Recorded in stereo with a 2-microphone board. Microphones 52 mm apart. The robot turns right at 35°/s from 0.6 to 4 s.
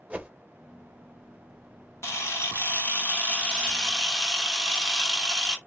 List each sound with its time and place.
0.1 s a whoosh: 25° right (ahead or behind), 0.5 m
2.0 s a camera shutter: 105° left, 1.3 m; by 5.6 s 175° left, 1.3 m